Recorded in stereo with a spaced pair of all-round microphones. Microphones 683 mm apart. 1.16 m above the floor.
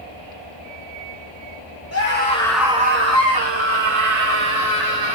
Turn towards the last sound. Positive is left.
turn(degrees=-75)  # may be behind; listen again after turning